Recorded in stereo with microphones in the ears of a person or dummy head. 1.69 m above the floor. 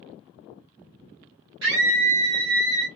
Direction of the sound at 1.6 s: 65° right (ahead or behind).